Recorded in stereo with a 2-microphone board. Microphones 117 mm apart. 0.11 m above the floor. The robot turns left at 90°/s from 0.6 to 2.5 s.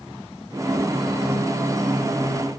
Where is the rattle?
I don't hear a rattle.